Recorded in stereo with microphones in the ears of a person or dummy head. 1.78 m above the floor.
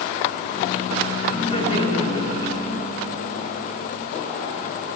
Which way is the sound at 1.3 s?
30° left (ahead or behind).